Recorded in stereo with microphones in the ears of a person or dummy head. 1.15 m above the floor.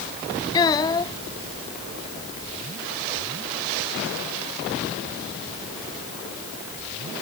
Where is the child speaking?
25° left (ahead or behind).